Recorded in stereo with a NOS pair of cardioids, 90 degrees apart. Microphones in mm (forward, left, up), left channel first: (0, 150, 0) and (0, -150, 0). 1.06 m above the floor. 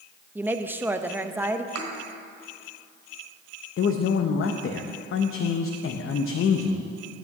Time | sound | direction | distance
0.3 | a woman speaking | 5° right | 0.7 m
1.8 | a thud | 65° right | 3 m
3.8 | a man speaking | 50° left | 0.8 m